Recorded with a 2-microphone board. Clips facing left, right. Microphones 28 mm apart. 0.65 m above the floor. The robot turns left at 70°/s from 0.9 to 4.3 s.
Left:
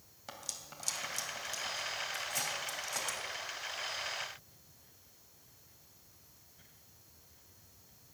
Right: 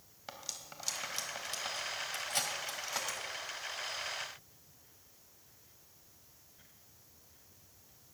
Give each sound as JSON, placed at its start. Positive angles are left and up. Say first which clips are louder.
{"t": 0.3, "sound": "cutlery clinking", "louder": "even", "side_deg": -15, "distance_m": 2.5}